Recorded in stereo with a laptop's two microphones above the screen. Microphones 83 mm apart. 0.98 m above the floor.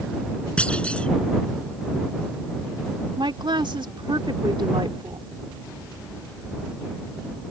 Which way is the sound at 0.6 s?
15° left (ahead or behind).